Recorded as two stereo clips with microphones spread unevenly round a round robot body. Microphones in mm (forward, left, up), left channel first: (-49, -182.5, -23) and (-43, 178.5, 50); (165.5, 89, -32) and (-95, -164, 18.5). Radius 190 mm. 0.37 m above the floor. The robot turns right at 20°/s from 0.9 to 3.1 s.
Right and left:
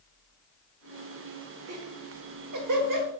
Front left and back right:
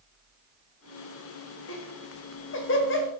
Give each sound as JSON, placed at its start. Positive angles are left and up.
{"t": 1.7, "sound": "laughter", "azimuth_deg": 45, "distance_m": 1.2}